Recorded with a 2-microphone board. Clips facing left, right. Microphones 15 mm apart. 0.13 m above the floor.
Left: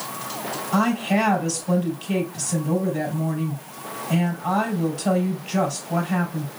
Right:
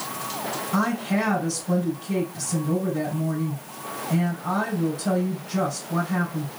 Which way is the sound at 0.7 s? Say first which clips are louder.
Left 4 dB; 65° left (ahead or behind).